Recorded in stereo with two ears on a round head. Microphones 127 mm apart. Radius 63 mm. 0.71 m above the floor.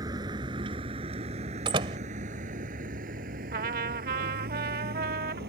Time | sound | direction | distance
0.0 | a vehicle | 30° right (ahead or behind) | ?
1.6 | a door slam | 35° right (ahead or behind) | ?
3.5 | a trumpet | 70° right (ahead or behind) | ?